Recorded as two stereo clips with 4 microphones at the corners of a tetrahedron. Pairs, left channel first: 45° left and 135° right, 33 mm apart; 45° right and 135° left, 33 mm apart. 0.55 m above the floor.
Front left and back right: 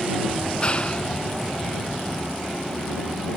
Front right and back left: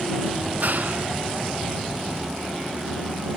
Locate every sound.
0.3 s a clap: 105° left